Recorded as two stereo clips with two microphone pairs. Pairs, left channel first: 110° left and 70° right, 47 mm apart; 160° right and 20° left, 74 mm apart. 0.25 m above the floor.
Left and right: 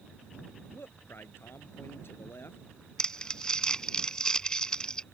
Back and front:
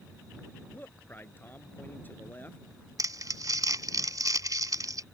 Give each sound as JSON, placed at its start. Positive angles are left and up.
{"t": 0.7, "sound": "a man speaking", "azimuth_deg": 135}
{"t": 3.0, "sound": "crumpling", "azimuth_deg": 40}